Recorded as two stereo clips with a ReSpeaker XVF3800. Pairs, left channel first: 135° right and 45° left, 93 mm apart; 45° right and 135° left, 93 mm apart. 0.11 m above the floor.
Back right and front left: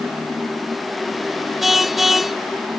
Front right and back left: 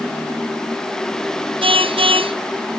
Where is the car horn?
130° left.